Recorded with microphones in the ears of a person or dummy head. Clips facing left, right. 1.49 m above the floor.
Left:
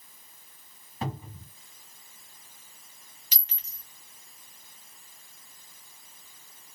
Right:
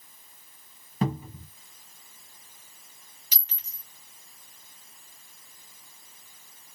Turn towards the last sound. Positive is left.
turn(degrees=30)  # may be behind; listen again after turning